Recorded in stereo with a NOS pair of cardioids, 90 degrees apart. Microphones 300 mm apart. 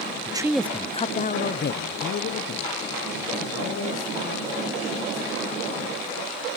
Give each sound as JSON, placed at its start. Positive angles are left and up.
{"t": 0.3, "sound": "a man speaking", "azimuth_deg": -20, "distance_m": 0.5}